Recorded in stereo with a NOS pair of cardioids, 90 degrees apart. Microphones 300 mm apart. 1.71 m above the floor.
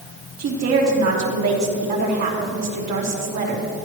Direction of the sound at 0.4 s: 60° right.